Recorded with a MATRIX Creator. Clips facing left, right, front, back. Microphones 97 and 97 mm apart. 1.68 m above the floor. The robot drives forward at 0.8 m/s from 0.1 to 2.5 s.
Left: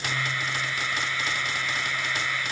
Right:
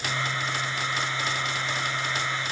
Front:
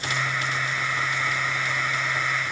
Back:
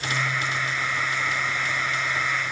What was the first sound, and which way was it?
Only background noise.